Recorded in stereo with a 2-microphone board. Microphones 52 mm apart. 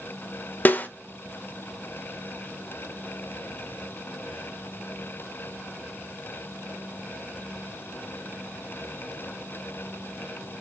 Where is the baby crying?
I don't hear a baby crying.